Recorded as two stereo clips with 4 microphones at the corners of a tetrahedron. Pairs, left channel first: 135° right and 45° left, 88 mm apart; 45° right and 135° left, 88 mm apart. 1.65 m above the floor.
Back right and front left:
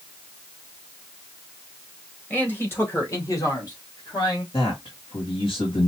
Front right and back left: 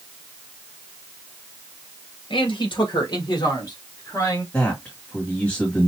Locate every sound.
2.3 s a man speaking: 65° right, 1.8 m; by 4.4 s 100° right, 2.5 m
4.5 s a man speaking: 120° right, 1.9 m